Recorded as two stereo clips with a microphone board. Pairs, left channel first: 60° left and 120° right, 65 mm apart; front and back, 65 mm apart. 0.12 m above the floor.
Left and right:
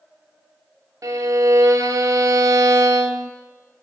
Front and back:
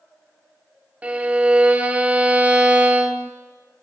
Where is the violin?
115° right, 0.6 m.